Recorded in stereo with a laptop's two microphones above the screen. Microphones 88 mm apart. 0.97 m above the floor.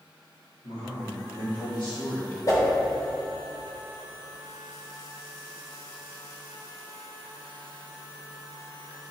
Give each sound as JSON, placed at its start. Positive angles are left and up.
{"t": 0.6, "sound": "a man speaking", "side_deg": 75, "distance_m": 2.5}
{"t": 2.5, "sound": "a whoosh", "side_deg": 40, "distance_m": 2.5}